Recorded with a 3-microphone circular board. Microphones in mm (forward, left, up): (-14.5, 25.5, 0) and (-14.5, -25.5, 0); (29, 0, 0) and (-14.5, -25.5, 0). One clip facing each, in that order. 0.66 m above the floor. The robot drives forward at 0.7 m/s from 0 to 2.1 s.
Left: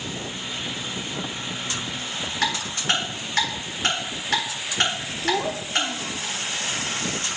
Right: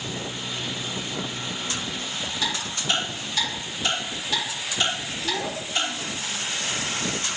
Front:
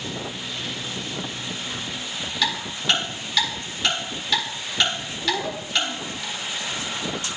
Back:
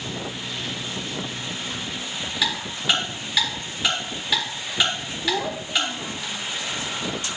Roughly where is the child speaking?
Behind left.